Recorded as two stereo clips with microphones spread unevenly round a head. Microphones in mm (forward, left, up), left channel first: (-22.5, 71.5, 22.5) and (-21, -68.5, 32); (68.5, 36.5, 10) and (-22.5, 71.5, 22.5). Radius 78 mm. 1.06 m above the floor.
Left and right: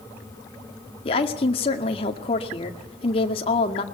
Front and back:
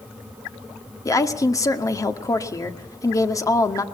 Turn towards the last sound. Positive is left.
turn(degrees=35)